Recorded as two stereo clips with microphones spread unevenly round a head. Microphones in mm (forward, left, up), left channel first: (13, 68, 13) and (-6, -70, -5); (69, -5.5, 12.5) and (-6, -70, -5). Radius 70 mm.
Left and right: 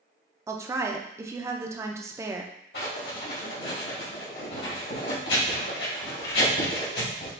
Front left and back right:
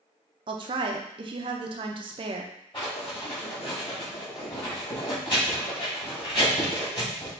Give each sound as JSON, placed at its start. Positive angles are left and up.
{"t": 0.5, "sound": "a woman speaking", "azimuth_deg": -160, "distance_m": 0.5}
{"t": 2.7, "sound": "writing", "azimuth_deg": 100, "distance_m": 2.0}